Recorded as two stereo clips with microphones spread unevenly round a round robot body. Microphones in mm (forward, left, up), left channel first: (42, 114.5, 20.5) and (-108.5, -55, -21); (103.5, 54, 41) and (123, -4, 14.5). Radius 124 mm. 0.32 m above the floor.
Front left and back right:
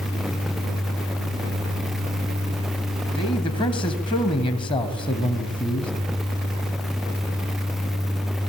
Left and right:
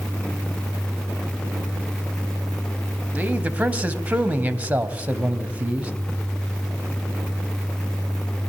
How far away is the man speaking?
About 2.5 m.